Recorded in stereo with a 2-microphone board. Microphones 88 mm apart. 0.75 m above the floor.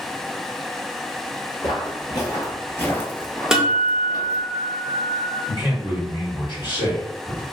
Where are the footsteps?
55° left (ahead or behind), 1.3 m; by 4.5 s 45° right (ahead or behind), 1.0 m.